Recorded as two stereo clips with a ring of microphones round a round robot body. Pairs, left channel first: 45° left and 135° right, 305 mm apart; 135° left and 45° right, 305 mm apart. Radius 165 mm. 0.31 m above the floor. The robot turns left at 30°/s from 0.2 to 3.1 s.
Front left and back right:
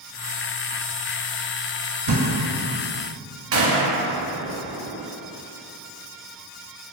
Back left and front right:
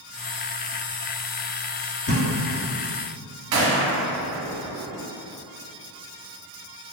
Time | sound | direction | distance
2.1 | a thud | 160° right | 0.9 m
3.5 | a gunshot | 90° right | 0.6 m